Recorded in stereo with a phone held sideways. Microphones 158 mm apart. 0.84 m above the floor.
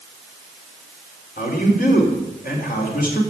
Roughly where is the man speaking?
Left.